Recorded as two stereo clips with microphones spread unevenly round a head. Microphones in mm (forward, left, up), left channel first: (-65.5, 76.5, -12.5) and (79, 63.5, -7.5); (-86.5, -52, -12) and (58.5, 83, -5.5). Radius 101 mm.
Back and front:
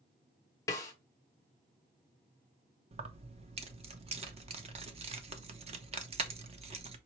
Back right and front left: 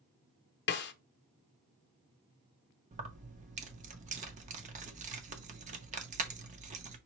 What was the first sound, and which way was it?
A snare drum, 115° right.